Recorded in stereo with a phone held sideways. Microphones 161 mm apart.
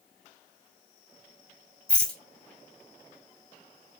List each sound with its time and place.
1.9 s a rattle: 5° left (ahead or behind), 1.6 m